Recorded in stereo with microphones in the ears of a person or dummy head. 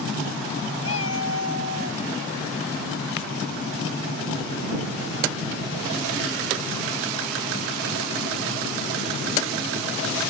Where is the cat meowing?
85° left.